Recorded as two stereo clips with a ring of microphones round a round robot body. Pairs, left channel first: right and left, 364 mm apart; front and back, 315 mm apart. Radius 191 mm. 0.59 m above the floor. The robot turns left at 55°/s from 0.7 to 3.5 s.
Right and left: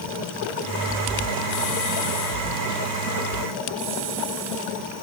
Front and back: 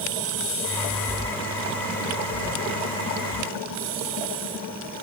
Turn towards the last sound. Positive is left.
No sound to turn to.